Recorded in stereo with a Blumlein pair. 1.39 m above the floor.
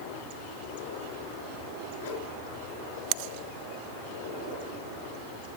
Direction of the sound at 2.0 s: 50° left.